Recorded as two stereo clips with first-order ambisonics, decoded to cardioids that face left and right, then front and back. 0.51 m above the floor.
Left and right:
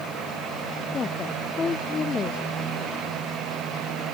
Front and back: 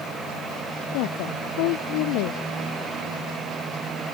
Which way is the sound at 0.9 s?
20° left.